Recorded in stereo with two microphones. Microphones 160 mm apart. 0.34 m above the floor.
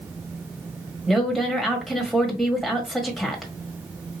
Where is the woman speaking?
Centre (ahead or behind), 1.4 m.